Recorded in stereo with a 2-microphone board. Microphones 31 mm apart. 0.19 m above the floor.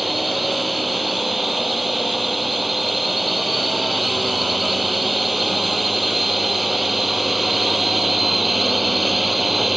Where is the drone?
5° right (ahead or behind).